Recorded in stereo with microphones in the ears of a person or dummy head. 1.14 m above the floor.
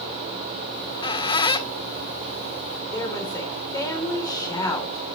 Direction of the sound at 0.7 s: 35° left (ahead or behind).